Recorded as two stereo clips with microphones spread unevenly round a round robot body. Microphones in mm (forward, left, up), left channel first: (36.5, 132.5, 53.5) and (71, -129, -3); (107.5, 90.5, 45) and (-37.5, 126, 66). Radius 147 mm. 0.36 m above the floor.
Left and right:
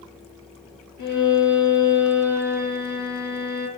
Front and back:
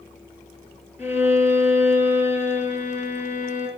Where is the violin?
90° left, 6.5 m.